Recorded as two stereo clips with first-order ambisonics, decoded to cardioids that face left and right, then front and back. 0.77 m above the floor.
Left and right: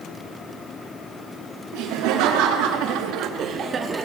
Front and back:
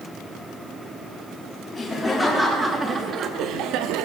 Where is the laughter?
70° right, 1.6 m; by 4.0 s 165° right, 1.2 m.